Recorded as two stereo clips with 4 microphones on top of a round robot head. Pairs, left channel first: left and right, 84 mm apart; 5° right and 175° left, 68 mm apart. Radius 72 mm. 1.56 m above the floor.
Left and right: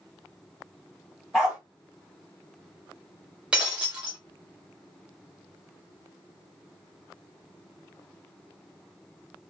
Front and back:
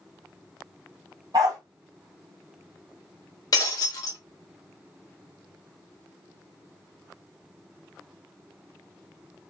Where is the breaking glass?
10° right, 0.9 m.